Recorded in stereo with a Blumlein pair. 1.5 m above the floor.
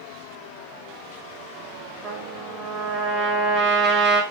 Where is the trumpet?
40° right, 5.5 m.